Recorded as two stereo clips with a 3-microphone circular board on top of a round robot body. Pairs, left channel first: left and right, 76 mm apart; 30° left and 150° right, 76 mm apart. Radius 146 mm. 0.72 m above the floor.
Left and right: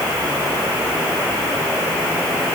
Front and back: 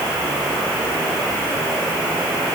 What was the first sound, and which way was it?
Only background noise.